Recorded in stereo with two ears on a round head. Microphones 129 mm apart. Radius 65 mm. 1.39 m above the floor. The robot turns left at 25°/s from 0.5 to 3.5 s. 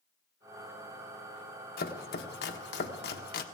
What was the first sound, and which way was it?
Chopping, 75° left (ahead or behind).